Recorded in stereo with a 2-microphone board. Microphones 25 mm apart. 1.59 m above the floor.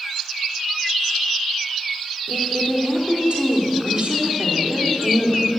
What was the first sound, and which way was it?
A woman speaking, 50° right (ahead or behind).